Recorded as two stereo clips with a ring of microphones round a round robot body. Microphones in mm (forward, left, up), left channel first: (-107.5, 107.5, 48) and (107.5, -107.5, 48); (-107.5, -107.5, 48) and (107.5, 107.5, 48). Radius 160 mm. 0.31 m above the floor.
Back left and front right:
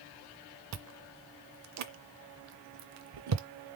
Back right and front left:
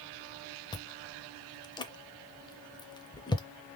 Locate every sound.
0.7 s chewing: 60° right, 0.6 m